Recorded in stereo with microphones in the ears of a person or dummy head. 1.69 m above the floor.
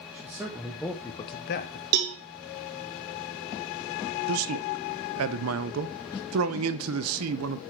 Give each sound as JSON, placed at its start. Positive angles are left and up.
{"t": 0.1, "sound": "a man speaking", "side_deg": -15, "distance_m": 1.5}
{"t": 1.9, "sound": "a cowbell", "side_deg": -50, "distance_m": 0.7}
{"t": 4.3, "sound": "a man speaking", "side_deg": -85, "distance_m": 0.6}